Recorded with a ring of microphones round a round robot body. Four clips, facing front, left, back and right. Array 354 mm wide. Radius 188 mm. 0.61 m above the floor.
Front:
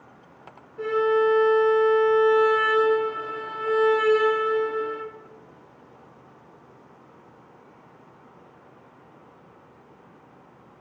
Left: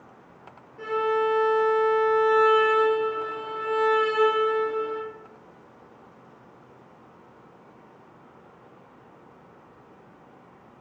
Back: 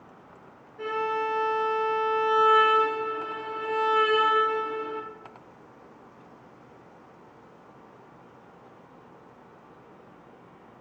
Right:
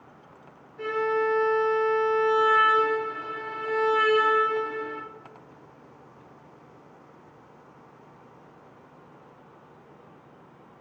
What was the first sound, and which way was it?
A violin, 10° left.